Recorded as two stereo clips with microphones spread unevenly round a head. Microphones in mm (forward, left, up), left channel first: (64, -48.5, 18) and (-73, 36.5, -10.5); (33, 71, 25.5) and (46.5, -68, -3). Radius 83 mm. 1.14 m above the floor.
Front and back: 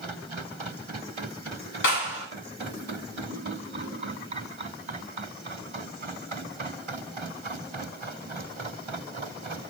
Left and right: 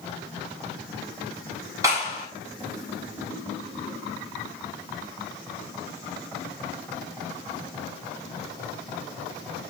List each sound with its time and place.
1.8 s a clap: 15° right, 5.5 m